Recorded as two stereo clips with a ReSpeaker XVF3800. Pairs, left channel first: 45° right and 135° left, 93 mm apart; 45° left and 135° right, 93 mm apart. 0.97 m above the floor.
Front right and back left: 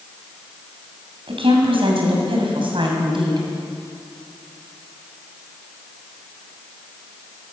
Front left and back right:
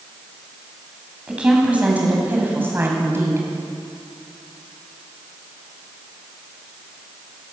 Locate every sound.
1.3 s a woman speaking: 145° left, 7 m; by 3.5 s 165° left, 7 m